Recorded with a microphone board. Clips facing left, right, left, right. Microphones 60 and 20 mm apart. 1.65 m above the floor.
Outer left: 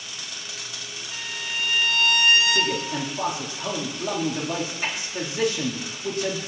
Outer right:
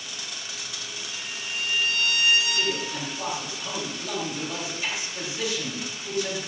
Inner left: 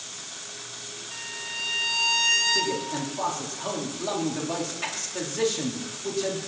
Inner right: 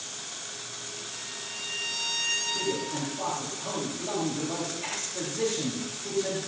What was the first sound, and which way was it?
A violin, 65° left (ahead or behind).